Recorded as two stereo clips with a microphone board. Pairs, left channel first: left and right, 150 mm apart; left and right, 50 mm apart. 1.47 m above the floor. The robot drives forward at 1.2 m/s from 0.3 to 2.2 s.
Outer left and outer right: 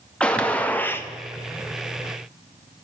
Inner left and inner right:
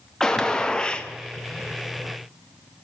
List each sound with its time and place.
0.2 s a gunshot: 10° left (ahead or behind), 1.6 m; by 1.1 s 15° left (ahead or behind), 0.8 m